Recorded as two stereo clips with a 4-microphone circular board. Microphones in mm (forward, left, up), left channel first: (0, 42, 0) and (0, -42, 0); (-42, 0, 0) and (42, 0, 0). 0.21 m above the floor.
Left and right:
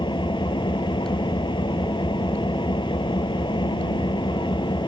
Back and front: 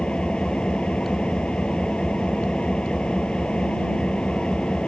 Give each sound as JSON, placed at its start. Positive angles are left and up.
{"t": 0.0, "sound": "an engine running", "azimuth_deg": 100}